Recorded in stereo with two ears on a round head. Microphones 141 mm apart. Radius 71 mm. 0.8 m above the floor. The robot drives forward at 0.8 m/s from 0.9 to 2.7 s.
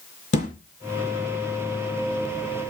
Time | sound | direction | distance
0.3 | a thud | 45° left (ahead or behind) | 4 m